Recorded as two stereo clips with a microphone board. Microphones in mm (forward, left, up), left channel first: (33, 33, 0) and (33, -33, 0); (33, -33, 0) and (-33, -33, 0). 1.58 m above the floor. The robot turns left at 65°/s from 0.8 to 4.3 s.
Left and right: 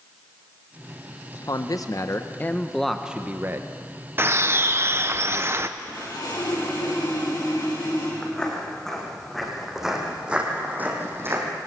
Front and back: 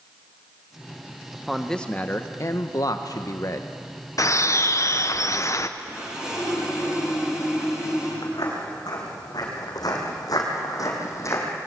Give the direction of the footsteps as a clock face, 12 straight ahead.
12 o'clock.